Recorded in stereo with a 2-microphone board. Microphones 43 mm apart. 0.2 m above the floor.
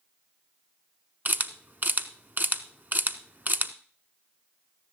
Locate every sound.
1.2 s a camera shutter: 45° right (ahead or behind), 0.8 m